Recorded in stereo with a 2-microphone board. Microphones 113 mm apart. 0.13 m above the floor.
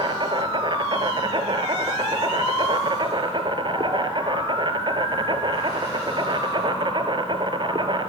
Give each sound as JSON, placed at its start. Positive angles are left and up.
{"t": 0.0, "sound": "an insect", "side_deg": -45, "distance_m": 0.8}